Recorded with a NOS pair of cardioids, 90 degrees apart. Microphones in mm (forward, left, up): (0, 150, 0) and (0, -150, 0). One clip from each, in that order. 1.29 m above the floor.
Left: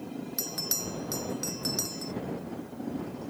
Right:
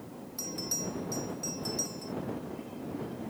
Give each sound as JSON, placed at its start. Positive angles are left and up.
{"t": 0.4, "sound": "a bell", "azimuth_deg": 60}